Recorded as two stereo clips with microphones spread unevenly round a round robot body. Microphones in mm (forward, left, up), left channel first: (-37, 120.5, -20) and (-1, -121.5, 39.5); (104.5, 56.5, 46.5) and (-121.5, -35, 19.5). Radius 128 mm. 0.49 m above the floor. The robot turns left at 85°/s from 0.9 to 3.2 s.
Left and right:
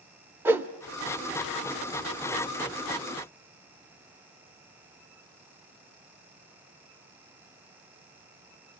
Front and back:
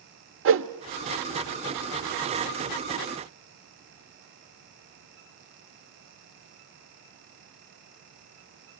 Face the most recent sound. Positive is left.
turn(degrees=-5)